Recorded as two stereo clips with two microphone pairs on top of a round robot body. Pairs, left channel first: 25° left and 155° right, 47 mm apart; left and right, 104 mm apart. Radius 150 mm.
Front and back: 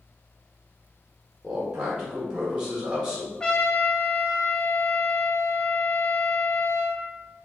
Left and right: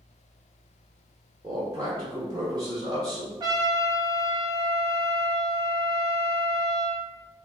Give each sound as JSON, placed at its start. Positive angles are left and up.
{"t": 1.4, "sound": "a man speaking", "azimuth_deg": -85, "distance_m": 1.1}
{"t": 3.4, "sound": "a trumpet", "azimuth_deg": -35, "distance_m": 0.9}